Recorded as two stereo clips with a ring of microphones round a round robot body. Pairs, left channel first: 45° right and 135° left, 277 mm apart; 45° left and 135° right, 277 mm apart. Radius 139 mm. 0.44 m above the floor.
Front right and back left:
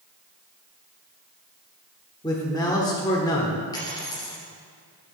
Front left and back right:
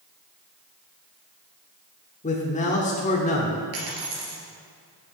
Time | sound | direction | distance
2.2 | a man speaking | 15° left | 0.9 m
3.7 | a dropped coin | 120° right | 2.5 m